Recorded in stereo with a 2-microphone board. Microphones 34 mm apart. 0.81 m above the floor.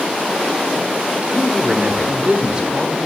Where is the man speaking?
30° right (ahead or behind), 2.5 m.